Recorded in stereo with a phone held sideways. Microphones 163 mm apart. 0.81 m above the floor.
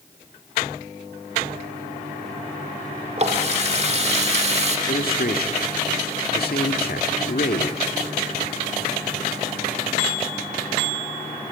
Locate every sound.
3.2 s a running tap: 40° right (ahead or behind), 1.6 m
4.9 s a man speaking: 70° left (ahead or behind), 1.8 m